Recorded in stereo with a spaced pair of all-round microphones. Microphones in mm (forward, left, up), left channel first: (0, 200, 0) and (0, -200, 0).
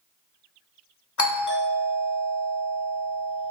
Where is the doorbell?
45° left (ahead or behind), 0.7 m.